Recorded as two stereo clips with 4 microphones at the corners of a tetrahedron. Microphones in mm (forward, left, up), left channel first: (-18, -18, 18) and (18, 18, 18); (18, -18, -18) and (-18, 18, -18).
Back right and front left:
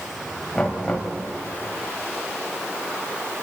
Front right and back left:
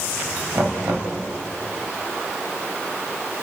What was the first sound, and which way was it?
Knocking, 150° left.